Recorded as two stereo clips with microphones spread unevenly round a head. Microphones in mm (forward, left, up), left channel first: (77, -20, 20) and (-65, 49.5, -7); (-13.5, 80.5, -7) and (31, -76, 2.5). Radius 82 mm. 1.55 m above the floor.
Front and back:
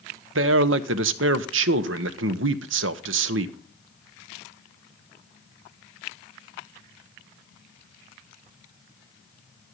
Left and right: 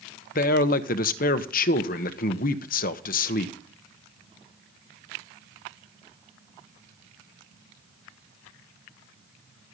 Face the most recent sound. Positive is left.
turn(degrees=145)